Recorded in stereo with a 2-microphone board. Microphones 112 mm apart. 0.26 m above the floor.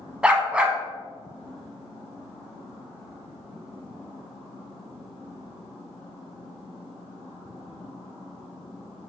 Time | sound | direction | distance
0.2 | a dog barking | 10° right (ahead or behind) | 0.5 m